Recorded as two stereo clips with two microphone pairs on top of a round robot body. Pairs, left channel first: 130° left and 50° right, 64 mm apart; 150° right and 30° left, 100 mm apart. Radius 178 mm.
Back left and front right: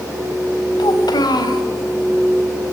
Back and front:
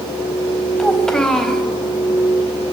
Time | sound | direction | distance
0.8 | a child speaking | 125° left | 4 m